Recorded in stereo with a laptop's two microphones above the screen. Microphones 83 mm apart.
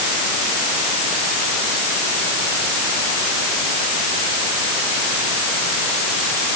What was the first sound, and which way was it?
Only background noise.